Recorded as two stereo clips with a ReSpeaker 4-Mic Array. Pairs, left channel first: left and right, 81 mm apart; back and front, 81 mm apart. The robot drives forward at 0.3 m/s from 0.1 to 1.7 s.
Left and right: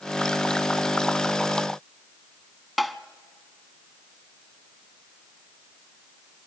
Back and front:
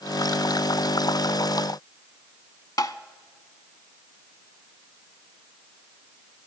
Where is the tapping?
175° right, 0.7 m.